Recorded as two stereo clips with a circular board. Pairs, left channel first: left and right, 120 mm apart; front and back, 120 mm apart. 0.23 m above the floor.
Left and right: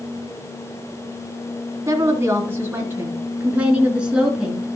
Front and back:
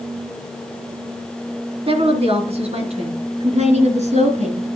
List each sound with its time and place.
1.9 s a woman speaking: 150° right, 3 m; by 4.7 s 175° right, 3.5 m